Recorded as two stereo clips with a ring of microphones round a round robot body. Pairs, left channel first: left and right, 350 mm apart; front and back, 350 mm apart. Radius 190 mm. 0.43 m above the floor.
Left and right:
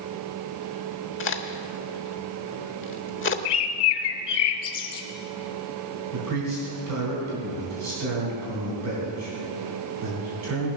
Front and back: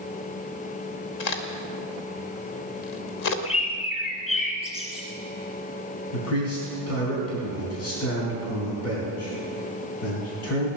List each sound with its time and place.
1.2 s a crack: 35° left, 1.1 m
3.5 s a bird: 75° left, 1.6 m
6.1 s a man speaking: 50° right, 4 m